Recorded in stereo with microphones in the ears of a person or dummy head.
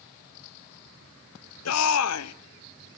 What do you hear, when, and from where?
1.6 s a shout: 90° left, 1.1 m